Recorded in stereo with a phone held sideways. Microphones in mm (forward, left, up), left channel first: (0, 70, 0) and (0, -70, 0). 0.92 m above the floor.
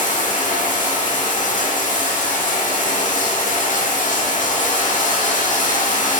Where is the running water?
70° left (ahead or behind), 1.3 m.